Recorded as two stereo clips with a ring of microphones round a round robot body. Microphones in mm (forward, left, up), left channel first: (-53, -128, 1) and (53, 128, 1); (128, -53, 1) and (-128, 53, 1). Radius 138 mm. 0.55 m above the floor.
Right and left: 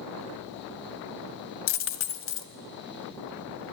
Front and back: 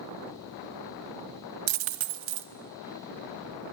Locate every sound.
1.7 s a dropped coin: 160° right, 0.7 m